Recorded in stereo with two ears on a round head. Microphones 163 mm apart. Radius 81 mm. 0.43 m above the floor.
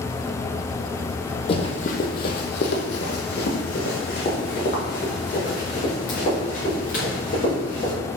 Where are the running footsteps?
30° left (ahead or behind), 0.8 m; by 7.9 s 45° left (ahead or behind), 3.5 m.